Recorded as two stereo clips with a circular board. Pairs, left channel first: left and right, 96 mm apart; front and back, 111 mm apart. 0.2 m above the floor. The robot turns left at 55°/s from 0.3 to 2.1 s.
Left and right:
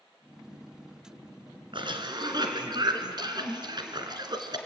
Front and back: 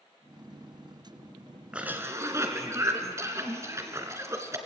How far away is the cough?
About 2.5 m.